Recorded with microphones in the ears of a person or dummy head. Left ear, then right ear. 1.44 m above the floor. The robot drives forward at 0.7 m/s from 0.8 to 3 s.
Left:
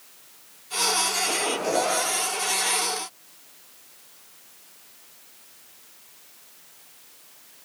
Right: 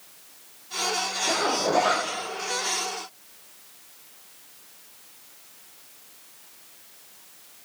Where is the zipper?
85° right, 2.5 m; by 2.1 s 75° right (ahead or behind), 3 m.